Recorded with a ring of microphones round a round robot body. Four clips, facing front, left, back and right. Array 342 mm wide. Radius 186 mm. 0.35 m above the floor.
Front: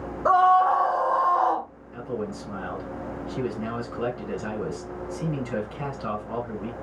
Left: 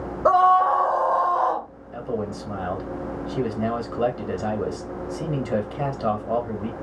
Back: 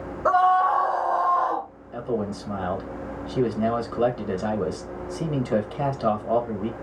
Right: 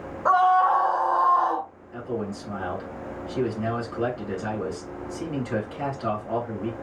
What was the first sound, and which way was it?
A scream, 95° left.